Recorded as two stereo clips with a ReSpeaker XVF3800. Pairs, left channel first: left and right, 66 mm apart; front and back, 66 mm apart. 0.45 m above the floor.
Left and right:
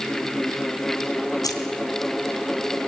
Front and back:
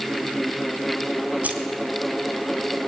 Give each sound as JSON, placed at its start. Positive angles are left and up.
{"t": 1.4, "sound": "keys jangling", "azimuth_deg": 110, "distance_m": 3.0}